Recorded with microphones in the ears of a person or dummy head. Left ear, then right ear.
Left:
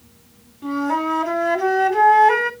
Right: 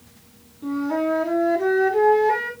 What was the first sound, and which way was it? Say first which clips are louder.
A flute: left 2 dB; 55° left (ahead or behind).